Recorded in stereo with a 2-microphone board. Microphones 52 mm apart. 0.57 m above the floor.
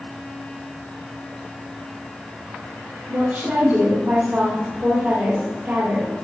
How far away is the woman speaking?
About 2 m.